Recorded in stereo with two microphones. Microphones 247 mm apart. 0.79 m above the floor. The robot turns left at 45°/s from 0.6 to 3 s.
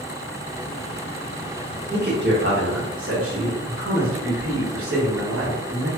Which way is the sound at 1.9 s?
40° right.